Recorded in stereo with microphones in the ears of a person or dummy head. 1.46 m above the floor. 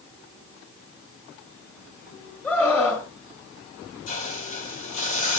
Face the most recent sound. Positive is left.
turn(degrees=40)  # may be behind; listen again after turning